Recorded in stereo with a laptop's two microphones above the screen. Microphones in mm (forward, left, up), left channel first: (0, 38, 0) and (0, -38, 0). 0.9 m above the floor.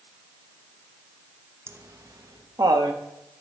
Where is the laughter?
35° right (ahead or behind), 0.8 m; by 3.0 s 60° right (ahead or behind), 1.6 m.